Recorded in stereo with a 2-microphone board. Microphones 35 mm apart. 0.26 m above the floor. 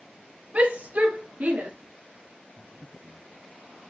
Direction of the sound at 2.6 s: 55° right (ahead or behind).